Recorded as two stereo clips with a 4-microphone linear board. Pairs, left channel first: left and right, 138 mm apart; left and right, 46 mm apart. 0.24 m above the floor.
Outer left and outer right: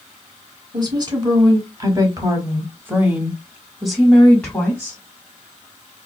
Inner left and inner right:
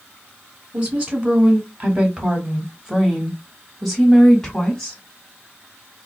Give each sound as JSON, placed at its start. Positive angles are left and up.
{"t": 0.7, "sound": "a woman speaking", "side_deg": -30, "distance_m": 2.0}